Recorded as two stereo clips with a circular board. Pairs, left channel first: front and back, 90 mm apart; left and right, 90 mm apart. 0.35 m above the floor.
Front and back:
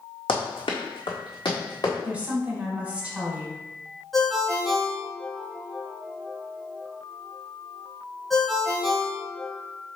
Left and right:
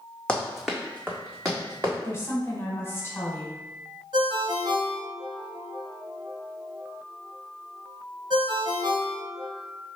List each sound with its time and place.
0.3 s running footsteps: 10° left, 1.1 m; by 1.9 s 40° right, 1.9 m
2.0 s a woman speaking: 120° left, 1.3 m
4.1 s a ringtone: 90° right, 0.9 m